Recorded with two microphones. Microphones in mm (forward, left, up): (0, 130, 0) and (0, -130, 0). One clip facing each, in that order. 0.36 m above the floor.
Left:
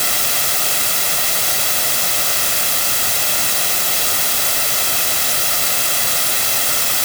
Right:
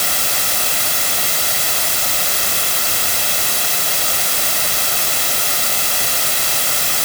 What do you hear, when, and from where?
Only background noise.